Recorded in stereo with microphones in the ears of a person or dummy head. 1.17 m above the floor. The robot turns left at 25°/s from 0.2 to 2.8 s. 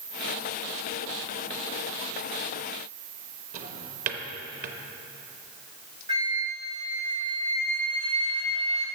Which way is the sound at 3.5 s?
50° right (ahead or behind).